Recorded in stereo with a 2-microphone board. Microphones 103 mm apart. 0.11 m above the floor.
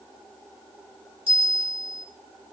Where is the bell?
65° right (ahead or behind), 1.4 m.